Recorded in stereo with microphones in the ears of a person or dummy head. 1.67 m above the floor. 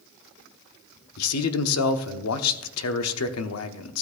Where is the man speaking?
85° left, 0.9 m.